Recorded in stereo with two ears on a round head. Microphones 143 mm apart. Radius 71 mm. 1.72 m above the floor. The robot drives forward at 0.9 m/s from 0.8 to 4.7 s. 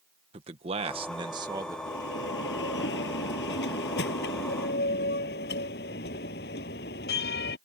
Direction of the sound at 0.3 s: 40° right (ahead or behind).